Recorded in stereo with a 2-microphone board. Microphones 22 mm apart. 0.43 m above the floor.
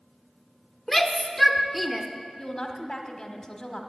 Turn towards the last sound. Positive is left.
turn(degrees=25)  # may be behind; listen again after turning